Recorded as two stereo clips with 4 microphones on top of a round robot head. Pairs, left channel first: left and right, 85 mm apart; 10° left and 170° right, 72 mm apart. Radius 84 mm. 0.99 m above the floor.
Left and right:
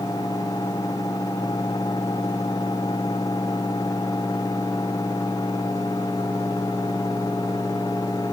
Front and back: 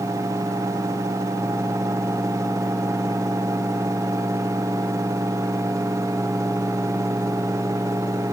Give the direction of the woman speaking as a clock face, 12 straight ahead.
I don't hear a woman speaking.